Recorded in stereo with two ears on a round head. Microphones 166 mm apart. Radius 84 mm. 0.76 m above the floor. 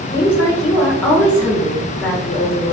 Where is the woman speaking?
10° left (ahead or behind), 1.4 m.